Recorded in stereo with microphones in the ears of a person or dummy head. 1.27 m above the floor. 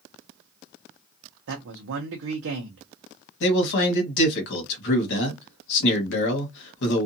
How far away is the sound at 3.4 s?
About 1.3 m.